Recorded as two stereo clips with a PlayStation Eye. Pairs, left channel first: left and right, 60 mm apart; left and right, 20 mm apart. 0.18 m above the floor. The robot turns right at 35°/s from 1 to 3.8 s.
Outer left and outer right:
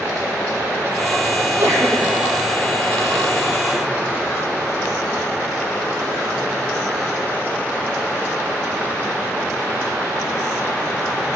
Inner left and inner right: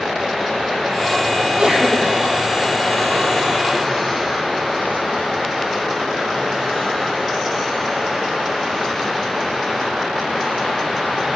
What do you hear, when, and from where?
1.4 s a sneeze: 40° right (ahead or behind), 6.5 m; by 2.1 s 60° right (ahead or behind), 6.5 m